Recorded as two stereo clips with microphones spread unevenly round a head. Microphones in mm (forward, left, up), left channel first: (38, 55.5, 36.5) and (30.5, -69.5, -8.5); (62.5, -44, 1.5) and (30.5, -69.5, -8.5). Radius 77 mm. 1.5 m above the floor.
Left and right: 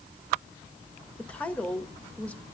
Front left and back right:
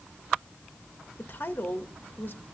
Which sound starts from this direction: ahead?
A woman speaking, at 1.2 s.